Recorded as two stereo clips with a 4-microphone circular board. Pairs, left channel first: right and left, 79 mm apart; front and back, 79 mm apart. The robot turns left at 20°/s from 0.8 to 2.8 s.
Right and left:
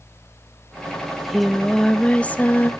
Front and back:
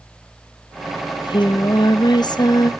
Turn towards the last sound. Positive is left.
turn(degrees=-30)